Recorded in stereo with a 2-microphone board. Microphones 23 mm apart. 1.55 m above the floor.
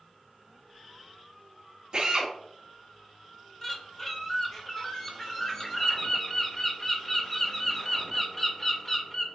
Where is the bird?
15° left (ahead or behind), 0.7 m.